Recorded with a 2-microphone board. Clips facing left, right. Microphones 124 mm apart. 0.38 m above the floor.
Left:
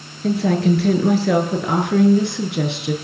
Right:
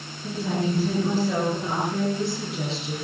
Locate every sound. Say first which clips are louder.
0.2 s a woman speaking: left 9 dB; 80° left, 6.5 m; by 3.0 s 70° left (ahead or behind), 5 m